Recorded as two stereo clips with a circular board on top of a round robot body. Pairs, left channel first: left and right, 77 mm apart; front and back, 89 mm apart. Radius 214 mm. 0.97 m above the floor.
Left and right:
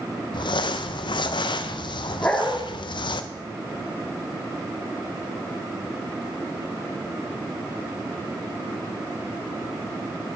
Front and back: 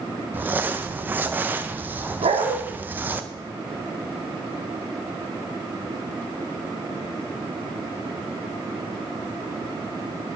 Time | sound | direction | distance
0.3 | crumpling | 110° left | 0.5 m
2.2 | a dog barking | 170° left | 0.9 m